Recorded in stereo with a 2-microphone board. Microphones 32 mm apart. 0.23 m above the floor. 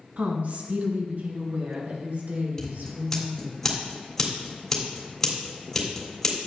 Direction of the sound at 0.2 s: 55° right (ahead or behind).